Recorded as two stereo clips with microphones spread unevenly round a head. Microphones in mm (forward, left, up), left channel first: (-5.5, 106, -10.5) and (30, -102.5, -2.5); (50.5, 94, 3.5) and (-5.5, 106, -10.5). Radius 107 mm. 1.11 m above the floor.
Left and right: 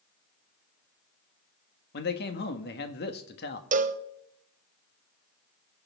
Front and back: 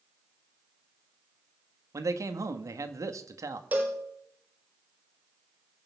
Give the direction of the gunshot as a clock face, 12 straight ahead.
I don't hear a gunshot.